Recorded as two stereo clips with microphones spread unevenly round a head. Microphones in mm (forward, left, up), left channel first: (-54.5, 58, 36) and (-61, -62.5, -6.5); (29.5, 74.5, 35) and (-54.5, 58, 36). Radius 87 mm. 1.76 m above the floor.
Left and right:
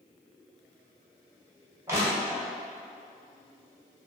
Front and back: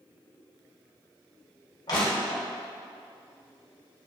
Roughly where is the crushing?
Ahead.